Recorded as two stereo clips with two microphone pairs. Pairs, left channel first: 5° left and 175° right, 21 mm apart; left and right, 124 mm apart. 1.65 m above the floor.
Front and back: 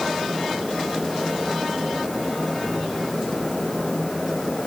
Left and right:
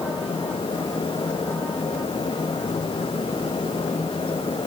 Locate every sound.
Only background noise.